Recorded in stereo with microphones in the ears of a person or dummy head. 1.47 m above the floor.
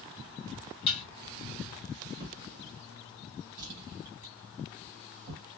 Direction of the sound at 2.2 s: 50° right (ahead or behind).